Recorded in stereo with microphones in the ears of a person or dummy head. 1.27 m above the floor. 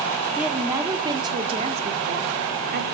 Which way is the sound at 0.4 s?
5° right (ahead or behind).